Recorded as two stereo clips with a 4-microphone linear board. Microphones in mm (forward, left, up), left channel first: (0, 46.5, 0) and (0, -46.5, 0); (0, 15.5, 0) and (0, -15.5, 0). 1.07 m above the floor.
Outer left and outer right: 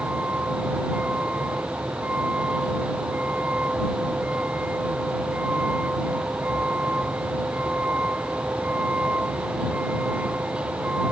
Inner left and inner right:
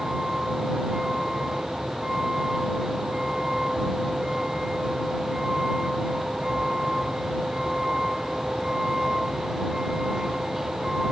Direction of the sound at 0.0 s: 15° right (ahead or behind).